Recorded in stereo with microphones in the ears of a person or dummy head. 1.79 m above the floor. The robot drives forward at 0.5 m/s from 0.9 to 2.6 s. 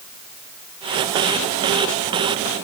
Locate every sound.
Only background noise.